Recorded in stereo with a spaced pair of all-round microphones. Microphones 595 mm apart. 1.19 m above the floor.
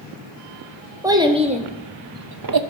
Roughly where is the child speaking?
Centre.